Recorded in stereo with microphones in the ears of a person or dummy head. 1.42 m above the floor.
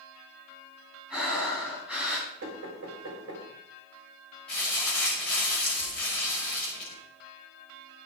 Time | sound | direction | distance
1.1 | breathing | 10° right (ahead or behind) | 5 m
2.4 | knocking | 55° right (ahead or behind) | 6 m
4.5 | crumpling | 5° left (ahead or behind) | 6 m